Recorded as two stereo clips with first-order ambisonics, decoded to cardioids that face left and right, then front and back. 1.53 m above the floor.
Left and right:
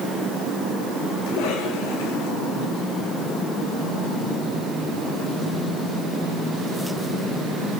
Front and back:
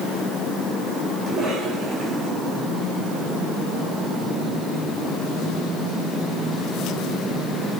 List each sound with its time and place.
1.3 s a cough: 100° left, 5.5 m